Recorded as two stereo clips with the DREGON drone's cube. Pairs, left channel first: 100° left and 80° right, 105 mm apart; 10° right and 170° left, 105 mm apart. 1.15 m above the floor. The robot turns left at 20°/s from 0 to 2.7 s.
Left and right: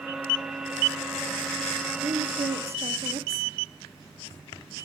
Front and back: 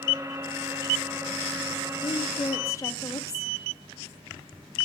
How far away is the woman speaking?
About 1.1 m.